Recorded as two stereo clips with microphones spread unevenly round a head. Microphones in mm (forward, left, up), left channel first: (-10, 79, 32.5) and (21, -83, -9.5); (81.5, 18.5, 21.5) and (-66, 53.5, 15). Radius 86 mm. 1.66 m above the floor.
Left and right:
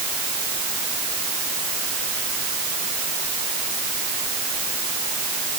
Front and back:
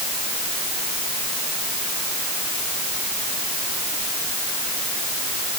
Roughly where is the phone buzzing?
I don't hear a phone buzzing.